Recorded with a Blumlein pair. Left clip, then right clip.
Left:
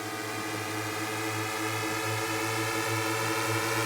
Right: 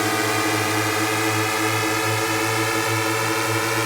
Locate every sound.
0.0 s a drone: 35° right; by 3.9 s 20° right